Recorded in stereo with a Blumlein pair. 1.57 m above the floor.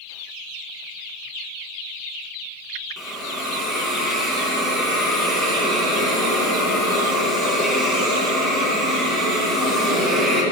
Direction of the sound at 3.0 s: 5° right.